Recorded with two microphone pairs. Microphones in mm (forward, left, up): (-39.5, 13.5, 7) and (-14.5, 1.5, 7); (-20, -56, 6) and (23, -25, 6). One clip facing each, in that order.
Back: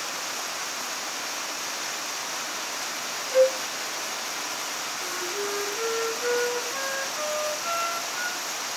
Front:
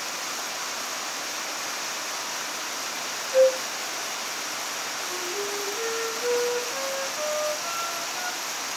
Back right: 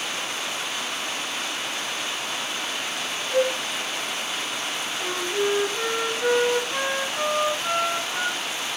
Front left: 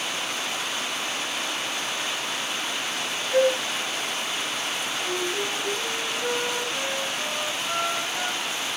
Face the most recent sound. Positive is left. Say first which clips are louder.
# back 1 dB, back right 5 dB
turn(degrees=-120)